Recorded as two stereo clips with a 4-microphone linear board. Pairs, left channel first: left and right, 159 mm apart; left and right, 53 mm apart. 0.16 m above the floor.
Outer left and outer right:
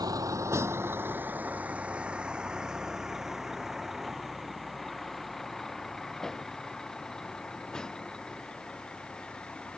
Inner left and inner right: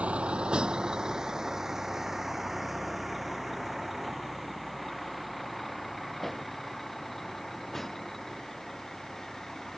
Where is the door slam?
I don't hear a door slam.